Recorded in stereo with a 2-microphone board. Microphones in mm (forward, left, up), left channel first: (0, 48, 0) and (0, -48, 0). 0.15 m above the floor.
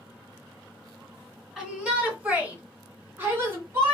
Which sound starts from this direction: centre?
A shout, at 1.6 s.